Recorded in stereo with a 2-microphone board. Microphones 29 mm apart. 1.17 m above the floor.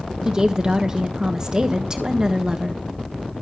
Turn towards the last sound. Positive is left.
turn(degrees=-25)  # may be behind; listen again after turning